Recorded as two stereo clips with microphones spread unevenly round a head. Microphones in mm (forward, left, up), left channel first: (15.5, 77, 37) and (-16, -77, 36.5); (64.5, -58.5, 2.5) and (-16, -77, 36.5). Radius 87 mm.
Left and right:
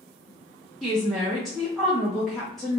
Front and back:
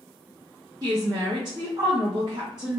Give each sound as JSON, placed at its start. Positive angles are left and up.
{"t": 0.8, "sound": "a woman speaking", "azimuth_deg": 170, "distance_m": 0.5}